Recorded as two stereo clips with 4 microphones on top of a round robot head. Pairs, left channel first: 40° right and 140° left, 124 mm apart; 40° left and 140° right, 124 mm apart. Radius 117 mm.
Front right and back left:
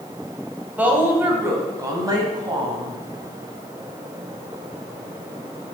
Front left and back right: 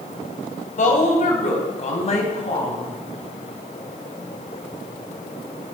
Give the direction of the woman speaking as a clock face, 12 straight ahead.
10 o'clock.